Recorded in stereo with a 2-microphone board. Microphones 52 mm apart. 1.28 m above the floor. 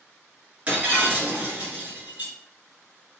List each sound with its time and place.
0.7 s breaking glass: 30° right (ahead or behind), 1.6 m